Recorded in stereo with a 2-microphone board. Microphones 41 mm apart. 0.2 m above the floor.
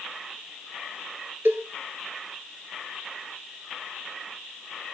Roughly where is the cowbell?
Right.